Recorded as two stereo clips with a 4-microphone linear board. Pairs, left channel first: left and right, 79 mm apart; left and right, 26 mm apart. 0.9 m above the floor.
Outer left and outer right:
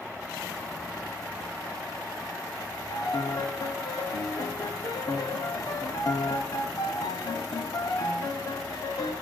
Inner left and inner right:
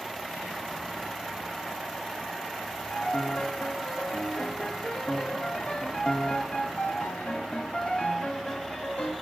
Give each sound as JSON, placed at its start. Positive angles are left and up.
{"t": 2.9, "sound": "a piano", "side_deg": 60, "distance_m": 1.1}